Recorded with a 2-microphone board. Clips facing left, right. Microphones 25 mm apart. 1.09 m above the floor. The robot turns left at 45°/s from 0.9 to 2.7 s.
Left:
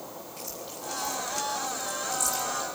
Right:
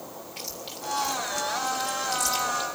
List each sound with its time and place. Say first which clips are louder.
0.4 s chewing: right 3 dB; 65° right (ahead or behind), 3 m; by 2.6 s 35° right (ahead or behind), 3 m